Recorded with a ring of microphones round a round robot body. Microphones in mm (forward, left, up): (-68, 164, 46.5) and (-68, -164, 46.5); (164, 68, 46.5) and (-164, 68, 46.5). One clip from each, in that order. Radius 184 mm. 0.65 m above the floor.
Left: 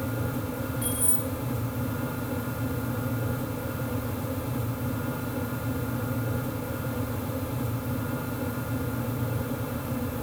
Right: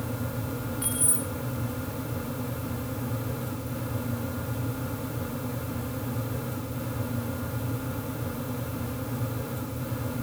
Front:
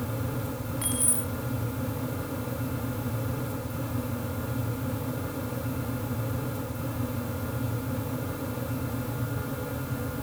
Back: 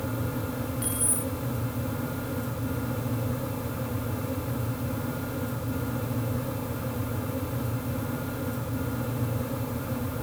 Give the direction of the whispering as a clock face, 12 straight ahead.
No whispering in this recording.